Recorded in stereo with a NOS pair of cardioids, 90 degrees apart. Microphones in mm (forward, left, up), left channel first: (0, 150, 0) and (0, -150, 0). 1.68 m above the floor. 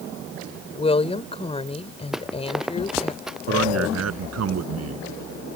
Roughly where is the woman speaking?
Ahead.